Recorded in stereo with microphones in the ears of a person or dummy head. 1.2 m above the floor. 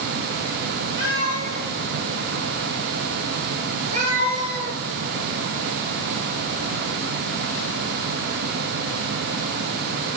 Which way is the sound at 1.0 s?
70° right (ahead or behind).